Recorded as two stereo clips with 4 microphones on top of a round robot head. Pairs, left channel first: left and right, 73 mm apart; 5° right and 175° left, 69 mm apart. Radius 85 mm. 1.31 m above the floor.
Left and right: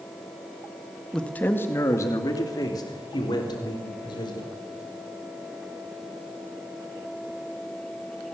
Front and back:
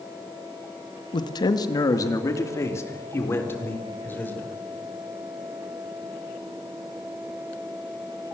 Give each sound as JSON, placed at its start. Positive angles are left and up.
{"t": 1.1, "sound": "a man speaking", "azimuth_deg": 10, "distance_m": 1.6}